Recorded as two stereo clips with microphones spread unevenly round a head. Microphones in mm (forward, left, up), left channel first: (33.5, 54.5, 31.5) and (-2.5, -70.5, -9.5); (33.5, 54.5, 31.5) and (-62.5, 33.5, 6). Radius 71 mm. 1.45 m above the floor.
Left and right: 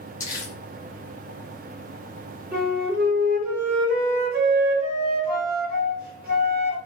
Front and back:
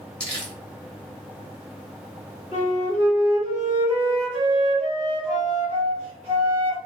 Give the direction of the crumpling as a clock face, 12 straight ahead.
10 o'clock.